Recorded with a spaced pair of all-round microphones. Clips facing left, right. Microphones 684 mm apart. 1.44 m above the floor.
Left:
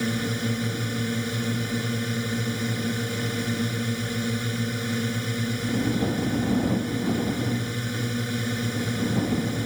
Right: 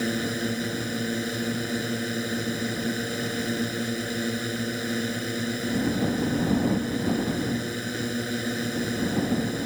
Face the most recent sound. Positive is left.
turn(degrees=35)  # may be behind; listen again after turning